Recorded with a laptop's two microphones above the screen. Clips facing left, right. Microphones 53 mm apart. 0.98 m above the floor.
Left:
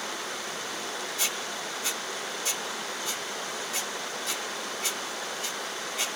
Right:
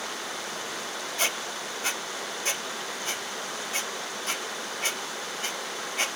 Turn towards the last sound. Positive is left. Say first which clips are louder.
# right 2 dB
turn(degrees=-50)  # may be behind; listen again after turning